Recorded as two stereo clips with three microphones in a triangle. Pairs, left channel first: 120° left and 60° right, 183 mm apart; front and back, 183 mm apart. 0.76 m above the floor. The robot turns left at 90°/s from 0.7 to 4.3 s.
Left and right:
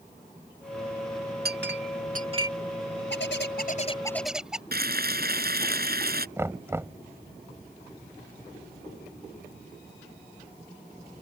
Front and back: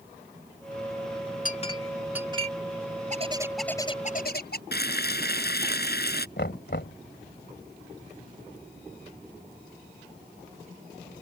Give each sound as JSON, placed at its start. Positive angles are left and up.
{"t": 1.4, "sound": "a clink", "azimuth_deg": -35}
{"t": 3.1, "sound": "a bird", "azimuth_deg": 135}
{"t": 4.7, "sound": "frying", "azimuth_deg": -30}
{"t": 6.4, "sound": "knocking", "azimuth_deg": 15}